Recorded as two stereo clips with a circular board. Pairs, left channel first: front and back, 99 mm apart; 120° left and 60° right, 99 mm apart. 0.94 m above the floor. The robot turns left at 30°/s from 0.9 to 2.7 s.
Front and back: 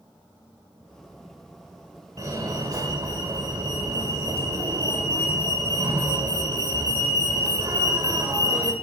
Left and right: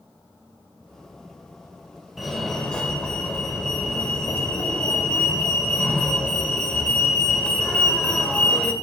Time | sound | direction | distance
2.2 | a fire alarm | 145° right | 1.8 m